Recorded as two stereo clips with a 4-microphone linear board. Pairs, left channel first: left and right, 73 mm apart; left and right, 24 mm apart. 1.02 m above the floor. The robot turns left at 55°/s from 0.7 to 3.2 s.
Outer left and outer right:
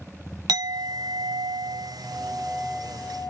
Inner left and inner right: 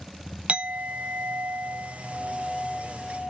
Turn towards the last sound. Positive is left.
turn(degrees=160)